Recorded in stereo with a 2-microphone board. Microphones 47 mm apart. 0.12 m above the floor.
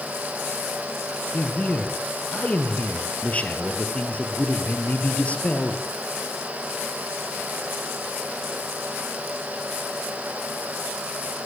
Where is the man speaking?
30° left (ahead or behind), 3.5 m.